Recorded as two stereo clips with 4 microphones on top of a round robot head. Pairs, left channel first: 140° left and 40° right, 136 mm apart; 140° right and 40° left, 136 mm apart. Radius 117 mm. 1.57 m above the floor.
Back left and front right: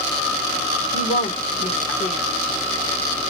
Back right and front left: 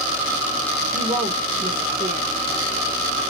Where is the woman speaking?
90° left, 1.0 m.